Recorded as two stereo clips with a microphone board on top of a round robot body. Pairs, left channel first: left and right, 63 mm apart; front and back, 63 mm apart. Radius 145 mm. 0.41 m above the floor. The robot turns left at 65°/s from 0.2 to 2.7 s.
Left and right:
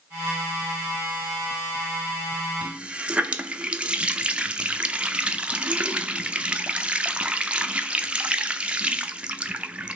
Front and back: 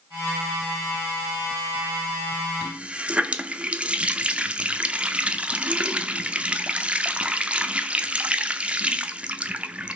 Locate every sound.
2.6 s a running tap: 130° right, 0.7 m; by 10.0 s 135° right, 0.7 m